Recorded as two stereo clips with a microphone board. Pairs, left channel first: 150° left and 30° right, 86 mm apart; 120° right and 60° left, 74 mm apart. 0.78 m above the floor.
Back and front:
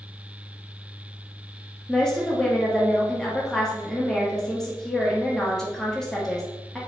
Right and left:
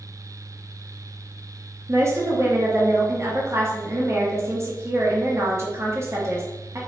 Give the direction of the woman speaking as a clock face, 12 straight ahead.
10 o'clock.